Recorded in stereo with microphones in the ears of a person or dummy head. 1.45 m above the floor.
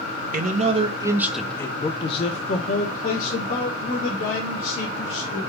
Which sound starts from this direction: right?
A man speaking, at 0.3 s.